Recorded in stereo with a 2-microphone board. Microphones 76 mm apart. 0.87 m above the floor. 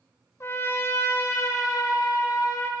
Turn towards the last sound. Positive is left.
turn(degrees=35)  # may be behind; listen again after turning